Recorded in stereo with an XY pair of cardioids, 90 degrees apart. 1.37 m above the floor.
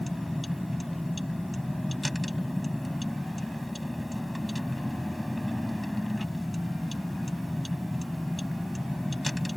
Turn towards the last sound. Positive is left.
turn(degrees=5)